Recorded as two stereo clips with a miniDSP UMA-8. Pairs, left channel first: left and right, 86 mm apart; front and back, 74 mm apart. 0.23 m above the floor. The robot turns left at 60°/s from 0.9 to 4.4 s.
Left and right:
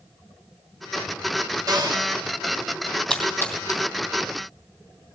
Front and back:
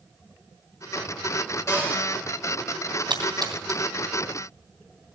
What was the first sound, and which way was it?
A cupboard door, 50° right.